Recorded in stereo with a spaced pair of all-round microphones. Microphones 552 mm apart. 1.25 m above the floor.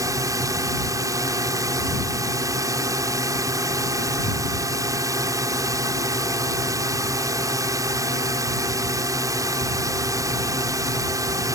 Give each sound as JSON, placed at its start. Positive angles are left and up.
{"t": 0.0, "sound": "a drone", "side_deg": -5}